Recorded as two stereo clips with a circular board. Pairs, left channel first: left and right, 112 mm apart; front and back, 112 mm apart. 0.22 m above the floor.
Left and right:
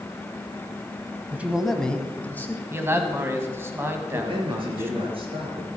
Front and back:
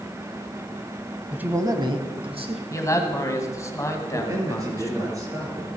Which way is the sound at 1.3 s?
120° right.